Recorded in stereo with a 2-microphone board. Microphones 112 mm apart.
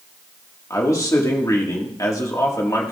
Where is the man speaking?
30° left (ahead or behind), 1.7 m.